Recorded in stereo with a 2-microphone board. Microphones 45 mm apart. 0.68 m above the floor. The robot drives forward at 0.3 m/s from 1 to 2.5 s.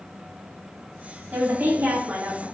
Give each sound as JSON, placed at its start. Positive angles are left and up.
{"t": 1.3, "sound": "a woman speaking", "side_deg": -55, "distance_m": 2.0}